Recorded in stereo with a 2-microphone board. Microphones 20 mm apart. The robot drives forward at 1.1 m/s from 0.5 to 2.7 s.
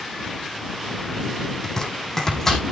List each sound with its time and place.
1.6 s chopping: 25° left (ahead or behind), 3.5 m; by 2.6 s 20° left (ahead or behind), 4.5 m